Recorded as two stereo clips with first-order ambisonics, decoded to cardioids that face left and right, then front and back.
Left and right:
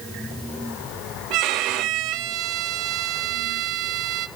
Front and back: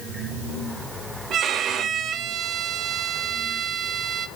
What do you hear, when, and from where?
1.3 s a violin: 120° right, 0.6 m